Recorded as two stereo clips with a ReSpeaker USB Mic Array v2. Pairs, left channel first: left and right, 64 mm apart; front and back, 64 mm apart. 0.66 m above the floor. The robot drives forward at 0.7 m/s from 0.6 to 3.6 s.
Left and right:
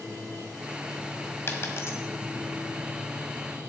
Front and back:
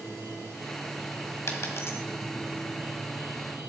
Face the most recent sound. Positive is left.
turn(degrees=100)